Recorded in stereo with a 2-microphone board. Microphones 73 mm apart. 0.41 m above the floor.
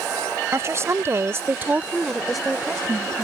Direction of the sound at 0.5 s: 40° right (ahead or behind).